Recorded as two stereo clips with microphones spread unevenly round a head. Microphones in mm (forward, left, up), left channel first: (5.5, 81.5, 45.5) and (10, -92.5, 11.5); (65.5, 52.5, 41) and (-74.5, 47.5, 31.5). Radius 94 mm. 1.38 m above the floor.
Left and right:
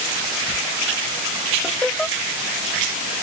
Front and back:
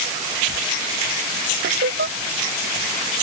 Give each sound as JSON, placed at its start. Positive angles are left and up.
{"t": 1.6, "sound": "laughter", "azimuth_deg": 180}